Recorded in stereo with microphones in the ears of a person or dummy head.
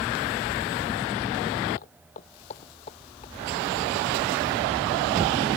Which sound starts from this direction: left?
Footsteps, at 1.8 s.